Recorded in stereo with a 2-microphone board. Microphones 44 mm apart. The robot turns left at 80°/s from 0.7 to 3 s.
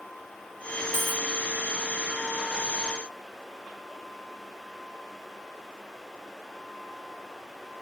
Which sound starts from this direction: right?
A dropped coin, at 0.9 s.